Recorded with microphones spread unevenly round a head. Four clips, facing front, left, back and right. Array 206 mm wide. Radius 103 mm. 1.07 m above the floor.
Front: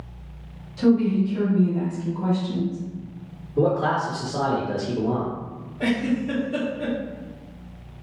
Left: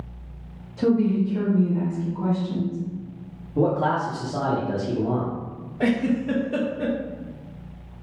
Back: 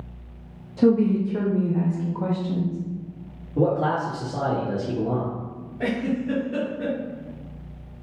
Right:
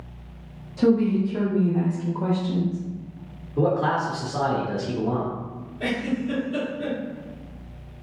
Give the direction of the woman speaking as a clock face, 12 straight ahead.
6 o'clock.